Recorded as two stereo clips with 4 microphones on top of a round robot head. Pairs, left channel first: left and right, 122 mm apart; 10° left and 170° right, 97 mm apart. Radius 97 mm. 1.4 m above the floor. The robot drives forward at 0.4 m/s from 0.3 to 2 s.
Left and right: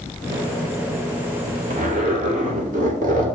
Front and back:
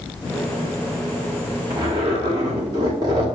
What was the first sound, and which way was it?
A zipper, 110° right.